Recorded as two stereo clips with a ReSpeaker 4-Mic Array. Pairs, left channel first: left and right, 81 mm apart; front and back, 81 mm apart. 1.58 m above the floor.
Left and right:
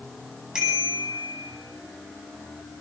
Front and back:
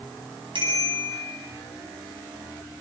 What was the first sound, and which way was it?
A bicycle bell, 170° right.